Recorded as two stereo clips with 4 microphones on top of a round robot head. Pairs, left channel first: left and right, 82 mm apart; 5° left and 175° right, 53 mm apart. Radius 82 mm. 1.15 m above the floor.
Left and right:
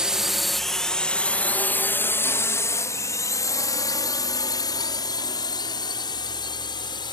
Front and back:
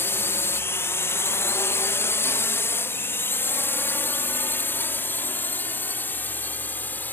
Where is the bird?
No bird in this recording.